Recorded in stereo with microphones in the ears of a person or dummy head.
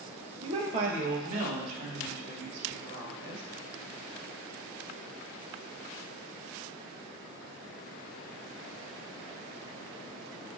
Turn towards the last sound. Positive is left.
turn(degrees=-60)  # may be behind; listen again after turning